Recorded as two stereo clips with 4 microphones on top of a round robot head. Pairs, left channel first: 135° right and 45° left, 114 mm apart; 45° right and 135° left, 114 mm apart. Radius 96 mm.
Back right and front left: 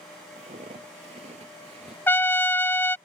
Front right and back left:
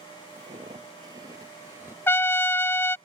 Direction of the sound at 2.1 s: 90° right.